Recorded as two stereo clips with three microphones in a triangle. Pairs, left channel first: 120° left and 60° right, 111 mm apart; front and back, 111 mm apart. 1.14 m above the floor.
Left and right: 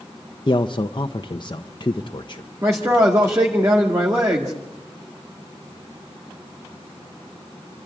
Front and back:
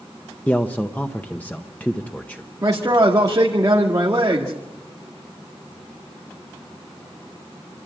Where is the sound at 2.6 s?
120° right, 1.9 m.